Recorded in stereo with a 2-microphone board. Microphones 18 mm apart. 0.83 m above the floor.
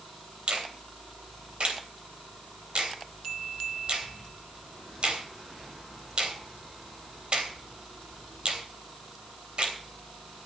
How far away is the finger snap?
About 3 m.